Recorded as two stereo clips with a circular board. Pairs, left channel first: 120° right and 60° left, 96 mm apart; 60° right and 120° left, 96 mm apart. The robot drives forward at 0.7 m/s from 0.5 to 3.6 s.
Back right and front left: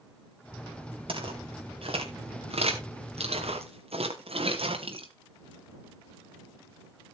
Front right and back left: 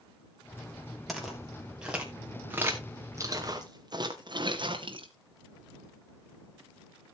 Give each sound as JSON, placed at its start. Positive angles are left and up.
{"t": 1.1, "sound": "footsteps", "azimuth_deg": 30, "distance_m": 5.0}